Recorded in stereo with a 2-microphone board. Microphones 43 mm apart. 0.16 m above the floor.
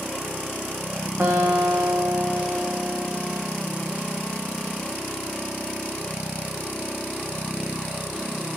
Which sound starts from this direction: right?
A guitar, at 1.2 s.